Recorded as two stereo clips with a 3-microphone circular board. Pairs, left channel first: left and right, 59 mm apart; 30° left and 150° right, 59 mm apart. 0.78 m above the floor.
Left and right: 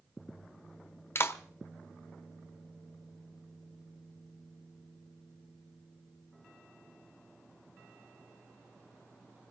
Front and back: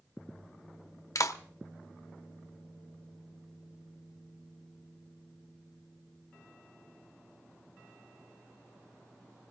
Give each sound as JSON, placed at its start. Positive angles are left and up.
{"t": 1.1, "sound": "a clap", "azimuth_deg": 45, "distance_m": 0.9}